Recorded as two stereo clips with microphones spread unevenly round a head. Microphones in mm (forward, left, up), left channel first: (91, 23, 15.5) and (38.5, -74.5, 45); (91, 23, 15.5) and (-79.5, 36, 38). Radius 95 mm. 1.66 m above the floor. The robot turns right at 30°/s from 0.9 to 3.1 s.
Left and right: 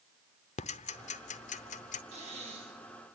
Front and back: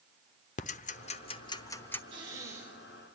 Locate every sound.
0.6 s ticking: 45° left, 0.8 m; by 2.0 s 75° left, 0.8 m
2.1 s breathing: 125° right, 3 m; by 3.2 s 95° right, 3 m